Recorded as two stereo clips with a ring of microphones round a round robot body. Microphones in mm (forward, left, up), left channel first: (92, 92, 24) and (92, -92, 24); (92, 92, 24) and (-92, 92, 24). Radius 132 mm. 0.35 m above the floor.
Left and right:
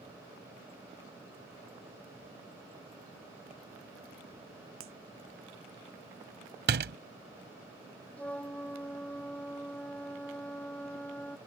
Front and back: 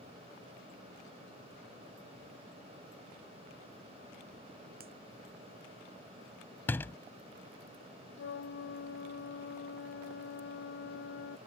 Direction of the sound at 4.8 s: 120° right.